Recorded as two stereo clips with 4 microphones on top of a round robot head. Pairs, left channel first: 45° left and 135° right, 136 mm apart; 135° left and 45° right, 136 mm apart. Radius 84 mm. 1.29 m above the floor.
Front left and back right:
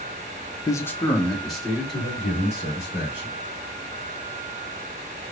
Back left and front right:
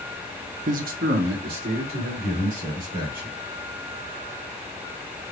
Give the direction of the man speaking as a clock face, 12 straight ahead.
1 o'clock.